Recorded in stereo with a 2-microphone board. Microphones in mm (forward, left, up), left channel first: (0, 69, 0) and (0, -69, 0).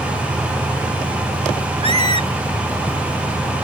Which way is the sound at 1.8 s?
45° right (ahead or behind).